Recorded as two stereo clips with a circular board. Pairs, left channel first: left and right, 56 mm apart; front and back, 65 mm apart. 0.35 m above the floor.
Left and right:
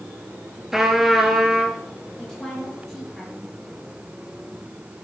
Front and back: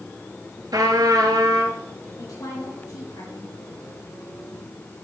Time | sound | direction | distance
0.7 | a trumpet | 175° right | 1.3 m
2.2 | a woman speaking | 5° left | 4.5 m